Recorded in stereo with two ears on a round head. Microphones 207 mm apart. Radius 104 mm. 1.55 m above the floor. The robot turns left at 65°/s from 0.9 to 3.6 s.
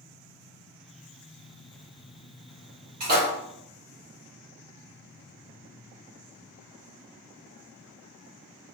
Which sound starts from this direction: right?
A splash, at 3.0 s.